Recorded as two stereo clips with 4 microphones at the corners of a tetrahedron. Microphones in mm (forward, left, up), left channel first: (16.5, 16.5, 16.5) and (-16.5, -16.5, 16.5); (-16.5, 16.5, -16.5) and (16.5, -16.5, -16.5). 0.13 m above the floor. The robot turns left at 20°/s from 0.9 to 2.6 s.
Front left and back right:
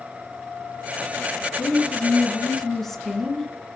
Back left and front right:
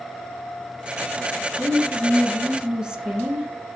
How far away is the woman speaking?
About 1.4 m.